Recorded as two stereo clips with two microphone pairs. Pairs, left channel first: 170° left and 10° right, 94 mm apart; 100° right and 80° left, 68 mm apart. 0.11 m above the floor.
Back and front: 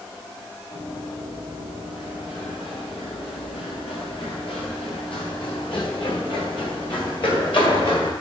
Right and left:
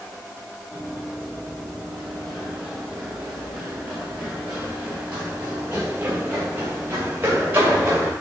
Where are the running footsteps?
170° left, 7 m; by 8.1 s 135° left, 9 m.